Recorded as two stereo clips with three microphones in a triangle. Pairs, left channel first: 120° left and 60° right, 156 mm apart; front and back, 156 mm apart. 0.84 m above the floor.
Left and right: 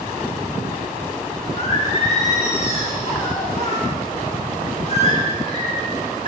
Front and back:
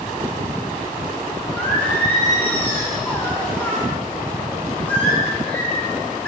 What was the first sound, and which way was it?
Singing, 80° left.